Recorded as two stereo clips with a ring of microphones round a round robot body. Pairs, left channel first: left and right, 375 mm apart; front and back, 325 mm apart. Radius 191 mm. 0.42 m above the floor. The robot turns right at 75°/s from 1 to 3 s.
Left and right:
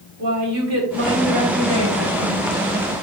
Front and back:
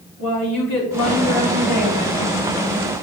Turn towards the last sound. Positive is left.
turn(degrees=105)